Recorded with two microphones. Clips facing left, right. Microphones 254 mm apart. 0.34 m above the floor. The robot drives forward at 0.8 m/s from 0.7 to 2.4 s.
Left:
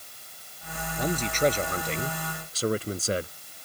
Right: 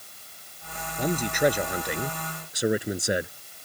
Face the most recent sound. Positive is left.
turn(degrees=-15)  # may be behind; listen again after turning